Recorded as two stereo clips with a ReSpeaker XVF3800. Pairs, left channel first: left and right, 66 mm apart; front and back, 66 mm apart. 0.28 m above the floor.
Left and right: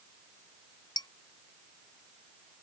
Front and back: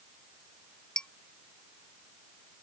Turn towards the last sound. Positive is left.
turn(degrees=80)